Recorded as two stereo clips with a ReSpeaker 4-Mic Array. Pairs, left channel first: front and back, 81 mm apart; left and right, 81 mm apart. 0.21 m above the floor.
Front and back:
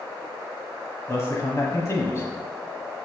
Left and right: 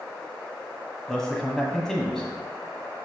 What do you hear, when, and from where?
1.1 s a man speaking: 10° left, 1.1 m